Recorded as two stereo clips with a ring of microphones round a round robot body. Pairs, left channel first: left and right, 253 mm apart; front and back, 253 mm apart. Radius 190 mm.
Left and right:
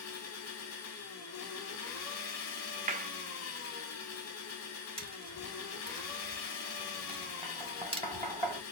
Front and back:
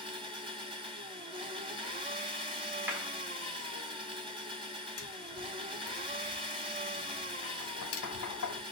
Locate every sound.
0.0 s an engine running: 110° left, 1.4 m
2.9 s a clap: 105° right, 0.7 m
5.0 s tapping: 25° right, 1.6 m